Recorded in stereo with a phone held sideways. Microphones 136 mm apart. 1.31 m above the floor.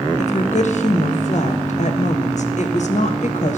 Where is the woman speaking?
60° left (ahead or behind), 1.0 m.